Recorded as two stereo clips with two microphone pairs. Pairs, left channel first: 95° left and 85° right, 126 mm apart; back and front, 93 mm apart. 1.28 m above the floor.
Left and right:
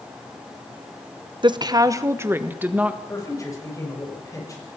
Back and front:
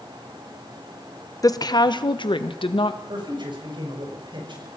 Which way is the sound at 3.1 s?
30° left.